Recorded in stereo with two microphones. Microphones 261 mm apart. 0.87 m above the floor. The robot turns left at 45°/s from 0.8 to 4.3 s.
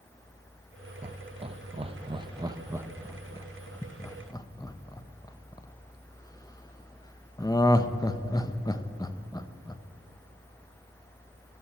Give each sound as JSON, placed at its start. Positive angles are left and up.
{"t": 1.0, "sound": "laughter", "side_deg": -25, "distance_m": 0.6}